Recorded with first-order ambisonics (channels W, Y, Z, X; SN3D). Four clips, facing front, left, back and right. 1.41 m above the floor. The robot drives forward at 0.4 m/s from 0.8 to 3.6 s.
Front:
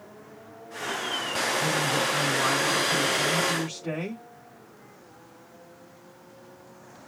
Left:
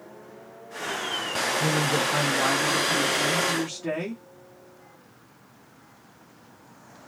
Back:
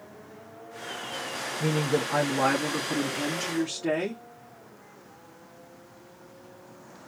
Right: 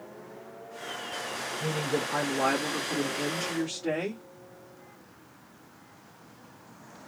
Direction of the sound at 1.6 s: 150° left.